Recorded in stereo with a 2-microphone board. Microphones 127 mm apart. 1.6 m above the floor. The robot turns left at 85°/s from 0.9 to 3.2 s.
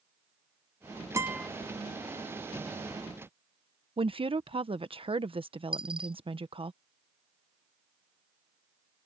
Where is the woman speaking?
45° right (ahead or behind).